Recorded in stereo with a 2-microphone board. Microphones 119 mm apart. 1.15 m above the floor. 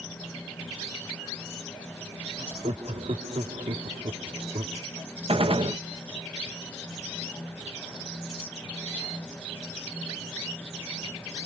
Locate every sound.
2.4 s laughter: 60° right (ahead or behind)
5.3 s a gunshot: 55° right (ahead or behind)